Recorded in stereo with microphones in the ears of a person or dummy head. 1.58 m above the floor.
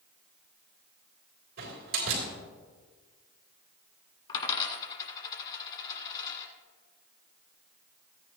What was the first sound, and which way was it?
A door slam, 60° right (ahead or behind).